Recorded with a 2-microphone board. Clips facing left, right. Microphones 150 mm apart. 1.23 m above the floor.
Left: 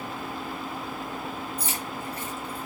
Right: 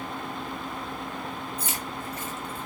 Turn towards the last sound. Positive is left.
turn(degrees=35)  # may be behind; listen again after turning